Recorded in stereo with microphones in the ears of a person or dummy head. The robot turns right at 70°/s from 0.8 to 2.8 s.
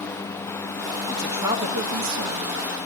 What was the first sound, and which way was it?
A man speaking, 175° left.